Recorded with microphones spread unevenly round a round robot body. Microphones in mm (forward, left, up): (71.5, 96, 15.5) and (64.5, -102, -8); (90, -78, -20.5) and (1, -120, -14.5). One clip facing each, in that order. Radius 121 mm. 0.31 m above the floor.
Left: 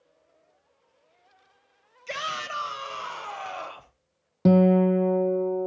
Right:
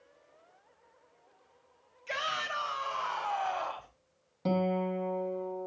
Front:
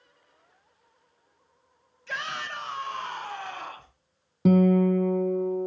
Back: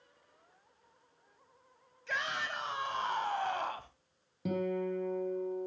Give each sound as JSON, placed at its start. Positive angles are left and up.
{"t": 2.1, "sound": "a shout", "azimuth_deg": 110, "distance_m": 1.9}
{"t": 4.5, "sound": "a guitar", "azimuth_deg": 65, "distance_m": 0.8}